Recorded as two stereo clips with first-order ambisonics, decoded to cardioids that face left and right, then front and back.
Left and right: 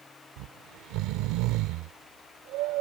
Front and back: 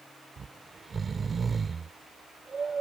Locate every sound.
0.4 s snoring: 110° right